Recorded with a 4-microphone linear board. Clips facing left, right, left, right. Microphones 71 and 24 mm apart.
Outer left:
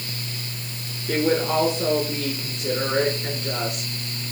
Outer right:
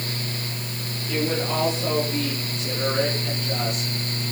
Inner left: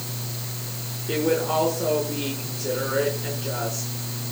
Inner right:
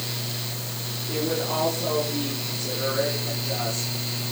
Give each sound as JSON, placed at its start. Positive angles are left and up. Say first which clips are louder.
{"t": 1.1, "sound": "a woman speaking", "louder": "outer left 4 dB, inner left 4 dB", "side_deg": 65, "distance_m": 6.0}